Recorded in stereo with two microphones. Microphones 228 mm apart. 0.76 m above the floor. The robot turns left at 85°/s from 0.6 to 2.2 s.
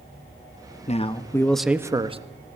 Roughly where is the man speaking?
Ahead left.